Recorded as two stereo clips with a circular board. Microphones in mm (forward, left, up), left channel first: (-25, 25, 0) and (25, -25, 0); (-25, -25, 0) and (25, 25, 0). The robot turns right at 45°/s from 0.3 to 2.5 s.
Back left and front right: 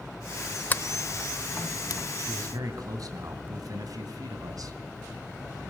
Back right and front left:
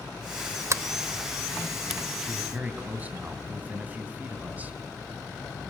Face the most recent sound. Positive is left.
turn(degrees=-20)